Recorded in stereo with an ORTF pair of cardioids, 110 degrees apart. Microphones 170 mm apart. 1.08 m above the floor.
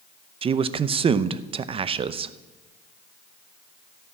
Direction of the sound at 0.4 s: 35° right.